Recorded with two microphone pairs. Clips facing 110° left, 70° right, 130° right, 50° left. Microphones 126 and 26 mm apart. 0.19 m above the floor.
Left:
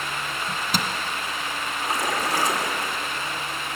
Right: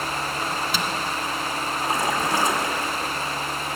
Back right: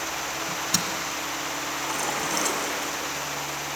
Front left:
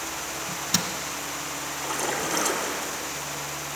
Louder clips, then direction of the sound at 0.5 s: Right 1 dB, front left 1 dB; 135° left.